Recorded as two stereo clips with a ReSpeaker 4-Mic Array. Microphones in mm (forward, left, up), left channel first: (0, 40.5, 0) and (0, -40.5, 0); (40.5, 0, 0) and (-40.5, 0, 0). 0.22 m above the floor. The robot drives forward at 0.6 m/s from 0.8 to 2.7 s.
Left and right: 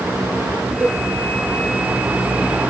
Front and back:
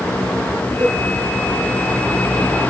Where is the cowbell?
165° right, 1.7 m.